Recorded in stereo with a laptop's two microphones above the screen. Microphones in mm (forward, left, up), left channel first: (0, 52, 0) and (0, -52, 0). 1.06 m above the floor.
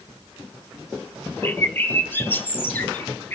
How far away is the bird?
About 0.8 m.